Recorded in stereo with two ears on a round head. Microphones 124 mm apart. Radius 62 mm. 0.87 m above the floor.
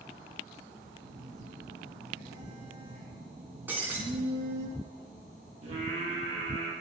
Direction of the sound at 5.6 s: 50° right (ahead or behind).